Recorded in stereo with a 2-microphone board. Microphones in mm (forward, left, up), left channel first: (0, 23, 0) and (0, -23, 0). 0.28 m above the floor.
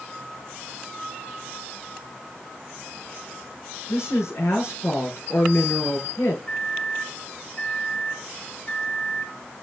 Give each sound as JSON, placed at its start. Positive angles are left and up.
{"t": 3.9, "sound": "a woman speaking", "side_deg": 75, "distance_m": 5.5}
{"t": 6.5, "sound": "a microwave", "side_deg": 40, "distance_m": 1.5}